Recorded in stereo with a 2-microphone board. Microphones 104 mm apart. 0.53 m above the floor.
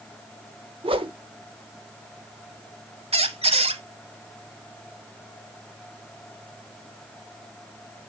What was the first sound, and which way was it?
A whoosh, 60° right (ahead or behind).